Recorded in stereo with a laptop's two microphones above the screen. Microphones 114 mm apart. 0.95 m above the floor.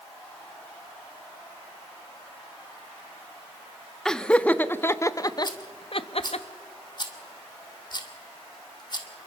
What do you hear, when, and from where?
4.0 s laughter: 5° left (ahead or behind), 1.4 m; by 6.4 s 65° left (ahead or behind), 1.1 m
5.4 s a rattle: 40° left (ahead or behind), 1.8 m